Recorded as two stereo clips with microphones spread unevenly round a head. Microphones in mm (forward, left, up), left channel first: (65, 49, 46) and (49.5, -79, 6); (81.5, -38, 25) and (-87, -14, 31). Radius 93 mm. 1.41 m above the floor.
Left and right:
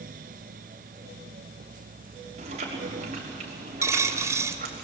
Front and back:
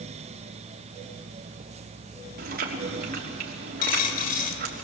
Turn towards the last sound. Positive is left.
turn(degrees=-20)